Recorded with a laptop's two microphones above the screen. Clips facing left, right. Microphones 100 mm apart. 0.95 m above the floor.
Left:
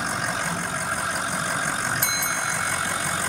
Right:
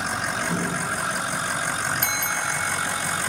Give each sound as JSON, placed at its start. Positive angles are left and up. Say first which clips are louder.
{"t": 0.3, "sound": "a door slam", "louder": "right 2 dB", "side_deg": -35}
{"t": 2.0, "sound": "a bell", "louder": "even", "side_deg": -55}